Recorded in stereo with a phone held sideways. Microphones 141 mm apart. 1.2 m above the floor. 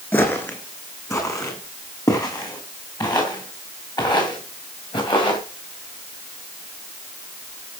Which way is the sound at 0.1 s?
15° left (ahead or behind).